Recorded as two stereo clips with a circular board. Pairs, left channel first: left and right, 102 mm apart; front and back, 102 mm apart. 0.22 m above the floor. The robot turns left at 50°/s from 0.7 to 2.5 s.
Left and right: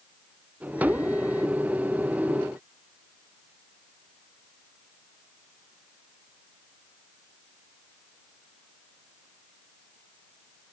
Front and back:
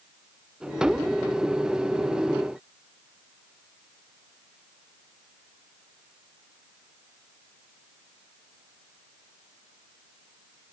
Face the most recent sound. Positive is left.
No sound to turn to.